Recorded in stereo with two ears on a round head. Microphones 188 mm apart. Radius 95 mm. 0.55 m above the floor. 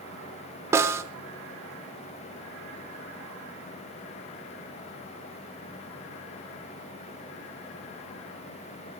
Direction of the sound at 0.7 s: 15° right (ahead or behind).